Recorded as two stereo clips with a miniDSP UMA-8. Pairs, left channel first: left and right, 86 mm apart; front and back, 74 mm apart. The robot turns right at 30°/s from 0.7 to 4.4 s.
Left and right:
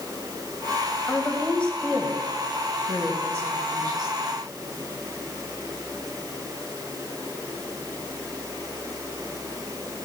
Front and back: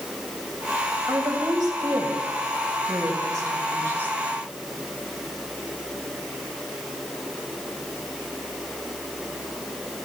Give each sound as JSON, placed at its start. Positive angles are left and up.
{"t": 1.1, "sound": "a woman speaking", "azimuth_deg": 150, "distance_m": 2.0}